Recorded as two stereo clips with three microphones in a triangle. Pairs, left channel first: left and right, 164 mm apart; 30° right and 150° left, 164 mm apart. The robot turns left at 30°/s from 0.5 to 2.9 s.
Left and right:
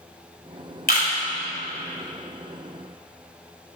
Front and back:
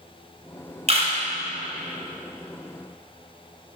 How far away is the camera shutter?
About 3 m.